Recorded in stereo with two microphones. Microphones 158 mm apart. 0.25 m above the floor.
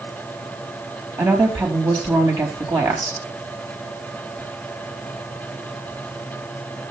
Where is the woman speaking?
25° right (ahead or behind), 4 m.